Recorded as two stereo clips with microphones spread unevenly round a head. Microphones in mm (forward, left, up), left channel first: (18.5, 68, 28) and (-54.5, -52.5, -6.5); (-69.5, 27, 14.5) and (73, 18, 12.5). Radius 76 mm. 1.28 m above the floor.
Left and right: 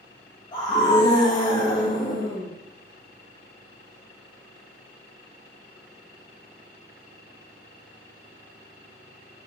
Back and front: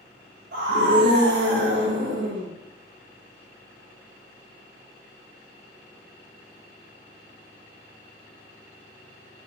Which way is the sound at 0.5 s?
5° right.